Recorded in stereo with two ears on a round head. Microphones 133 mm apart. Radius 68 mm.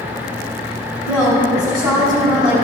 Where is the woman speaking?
30° right (ahead or behind), 3 m.